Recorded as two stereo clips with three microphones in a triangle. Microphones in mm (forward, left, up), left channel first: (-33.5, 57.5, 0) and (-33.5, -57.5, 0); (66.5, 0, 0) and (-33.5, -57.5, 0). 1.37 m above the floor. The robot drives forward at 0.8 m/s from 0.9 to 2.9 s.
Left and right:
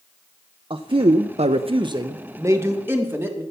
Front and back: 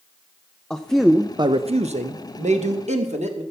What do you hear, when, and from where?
0.7 s a man speaking: 55° right, 0.6 m; by 3.4 s 160° right, 1.4 m